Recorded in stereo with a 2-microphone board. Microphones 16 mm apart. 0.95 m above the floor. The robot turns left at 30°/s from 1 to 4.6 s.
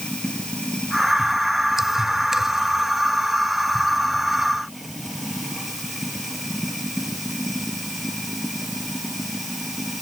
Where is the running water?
100° left; by 10.0 s 10° right.